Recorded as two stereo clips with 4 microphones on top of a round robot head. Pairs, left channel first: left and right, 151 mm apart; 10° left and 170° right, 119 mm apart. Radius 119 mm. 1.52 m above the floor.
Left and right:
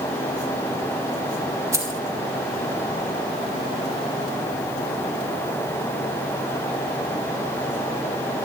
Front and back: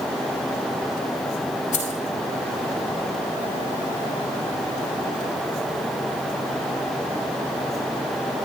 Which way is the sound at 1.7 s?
20° right.